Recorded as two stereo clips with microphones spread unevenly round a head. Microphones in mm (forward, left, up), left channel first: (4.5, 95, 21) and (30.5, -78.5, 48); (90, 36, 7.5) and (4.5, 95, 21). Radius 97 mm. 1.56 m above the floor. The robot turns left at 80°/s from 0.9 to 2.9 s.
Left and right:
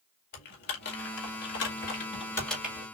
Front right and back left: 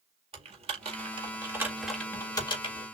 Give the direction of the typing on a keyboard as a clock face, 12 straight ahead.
7 o'clock.